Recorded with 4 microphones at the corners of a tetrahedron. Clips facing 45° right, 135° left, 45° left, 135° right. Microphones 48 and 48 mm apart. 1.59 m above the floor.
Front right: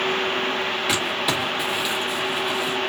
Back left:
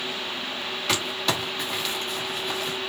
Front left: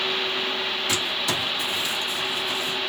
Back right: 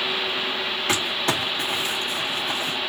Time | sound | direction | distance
0.9 | crumpling | 125° right | 1.6 m